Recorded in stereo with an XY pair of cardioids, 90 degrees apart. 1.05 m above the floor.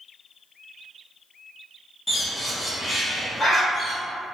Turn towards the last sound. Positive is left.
turn(degrees=30)